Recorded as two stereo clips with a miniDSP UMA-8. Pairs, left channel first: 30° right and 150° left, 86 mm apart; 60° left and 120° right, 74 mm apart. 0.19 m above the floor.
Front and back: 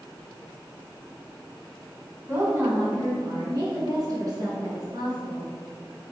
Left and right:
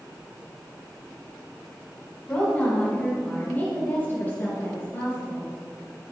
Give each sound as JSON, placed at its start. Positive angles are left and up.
{"t": 2.3, "sound": "a woman speaking", "azimuth_deg": 120, "distance_m": 1.8}